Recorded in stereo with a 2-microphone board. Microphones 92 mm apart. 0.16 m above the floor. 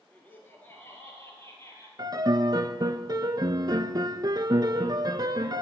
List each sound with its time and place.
0.1 s laughter: 20° left (ahead or behind), 2.5 m; by 1.9 s 30° left (ahead or behind), 4 m
2.0 s a piano: 45° right (ahead or behind), 0.5 m